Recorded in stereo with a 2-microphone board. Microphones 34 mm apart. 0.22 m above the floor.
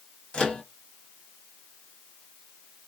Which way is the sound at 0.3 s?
30° left (ahead or behind).